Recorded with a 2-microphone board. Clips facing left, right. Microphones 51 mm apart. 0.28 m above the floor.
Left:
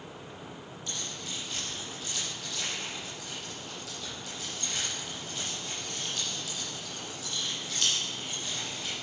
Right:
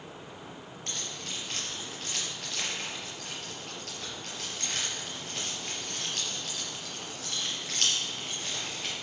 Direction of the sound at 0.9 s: 55° right (ahead or behind).